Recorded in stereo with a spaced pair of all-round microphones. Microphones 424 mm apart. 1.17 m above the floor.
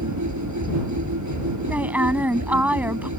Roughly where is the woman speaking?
Centre.